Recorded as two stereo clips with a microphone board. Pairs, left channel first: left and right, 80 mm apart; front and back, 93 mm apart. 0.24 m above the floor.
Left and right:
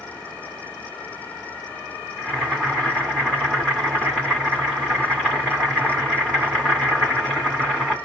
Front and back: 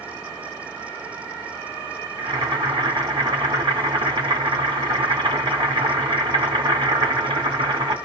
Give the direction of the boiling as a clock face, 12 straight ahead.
6 o'clock.